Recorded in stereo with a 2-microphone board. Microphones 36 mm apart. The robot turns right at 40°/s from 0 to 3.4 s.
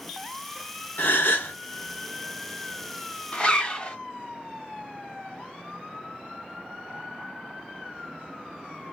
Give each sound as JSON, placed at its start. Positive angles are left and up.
{"t": 1.0, "sound": "a gasp", "side_deg": 65, "distance_m": 0.8}
{"t": 3.3, "sound": "a zipper", "side_deg": 30, "distance_m": 1.6}